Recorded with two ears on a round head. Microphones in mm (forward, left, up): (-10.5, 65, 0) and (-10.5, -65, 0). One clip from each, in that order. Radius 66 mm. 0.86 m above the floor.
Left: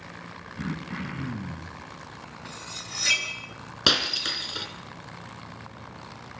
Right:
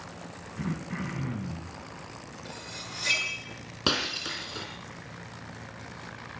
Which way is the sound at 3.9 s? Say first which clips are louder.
Left 6 dB; 40° left (ahead or behind).